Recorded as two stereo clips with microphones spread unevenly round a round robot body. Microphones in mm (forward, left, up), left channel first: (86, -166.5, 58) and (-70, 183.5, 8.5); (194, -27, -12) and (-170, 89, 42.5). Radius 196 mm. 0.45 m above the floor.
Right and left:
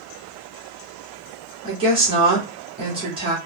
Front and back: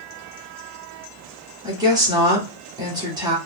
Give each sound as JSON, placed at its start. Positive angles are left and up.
{"t": 1.6, "sound": "a woman speaking", "azimuth_deg": 75, "distance_m": 1.4}